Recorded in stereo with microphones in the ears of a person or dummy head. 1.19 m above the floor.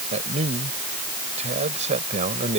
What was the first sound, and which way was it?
A man speaking, 35° right (ahead or behind).